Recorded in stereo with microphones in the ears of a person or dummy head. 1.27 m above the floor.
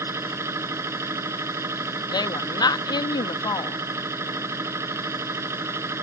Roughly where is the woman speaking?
Left.